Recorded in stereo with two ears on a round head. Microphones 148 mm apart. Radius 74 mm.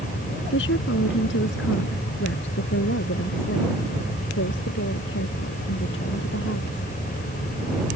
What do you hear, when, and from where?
0.5 s a woman speaking: 80° left; by 6.8 s 85° left